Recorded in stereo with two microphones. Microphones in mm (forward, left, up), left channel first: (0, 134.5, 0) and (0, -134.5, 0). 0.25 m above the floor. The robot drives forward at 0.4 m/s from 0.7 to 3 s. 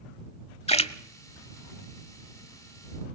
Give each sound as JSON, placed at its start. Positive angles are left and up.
{"t": 0.7, "sound": "a splash", "side_deg": 25, "distance_m": 1.0}